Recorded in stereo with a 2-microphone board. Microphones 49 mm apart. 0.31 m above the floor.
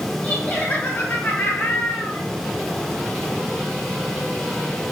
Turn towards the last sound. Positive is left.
turn(degrees=65)  # may be behind; listen again after turning